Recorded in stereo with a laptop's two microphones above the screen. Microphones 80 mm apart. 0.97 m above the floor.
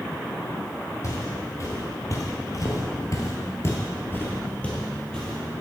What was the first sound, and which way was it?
Footsteps, 40° left (ahead or behind).